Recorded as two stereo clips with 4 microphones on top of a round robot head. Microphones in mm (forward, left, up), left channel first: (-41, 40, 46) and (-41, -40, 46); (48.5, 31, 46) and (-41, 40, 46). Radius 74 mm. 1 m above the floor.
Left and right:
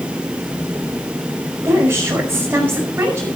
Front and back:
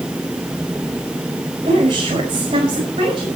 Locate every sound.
1.6 s a woman speaking: 155° right, 5.5 m